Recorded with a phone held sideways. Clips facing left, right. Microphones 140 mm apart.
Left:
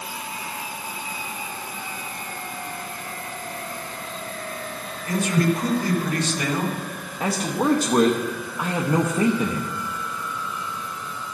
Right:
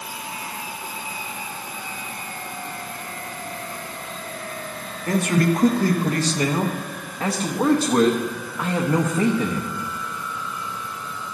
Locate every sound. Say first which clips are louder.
5.1 s a man speaking: right 2 dB; 50° right (ahead or behind), 1.7 m; by 7.1 s 20° right (ahead or behind), 1.8 m
7.2 s a man speaking: right 1 dB; 5° left (ahead or behind), 1.0 m